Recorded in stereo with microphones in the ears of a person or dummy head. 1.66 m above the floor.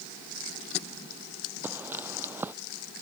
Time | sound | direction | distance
1.6 | footsteps | 10° right (ahead or behind) | ?